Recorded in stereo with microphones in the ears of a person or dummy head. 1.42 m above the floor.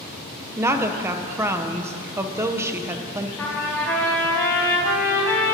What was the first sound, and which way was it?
A woman speaking, 15° right (ahead or behind).